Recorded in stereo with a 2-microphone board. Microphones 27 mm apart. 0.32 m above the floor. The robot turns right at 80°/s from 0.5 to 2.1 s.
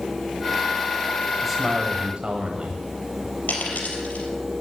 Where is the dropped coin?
75° left (ahead or behind), 4 m.